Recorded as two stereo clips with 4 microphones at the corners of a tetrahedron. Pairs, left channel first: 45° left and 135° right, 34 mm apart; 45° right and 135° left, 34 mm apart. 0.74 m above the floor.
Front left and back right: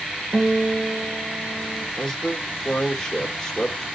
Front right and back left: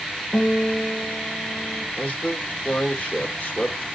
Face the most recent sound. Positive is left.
turn(degrees=-25)